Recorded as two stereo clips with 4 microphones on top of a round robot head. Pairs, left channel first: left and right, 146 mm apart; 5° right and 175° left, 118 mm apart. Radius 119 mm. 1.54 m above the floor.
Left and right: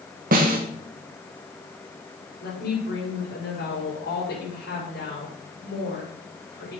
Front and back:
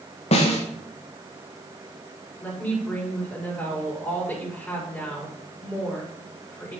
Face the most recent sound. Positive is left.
turn(degrees=75)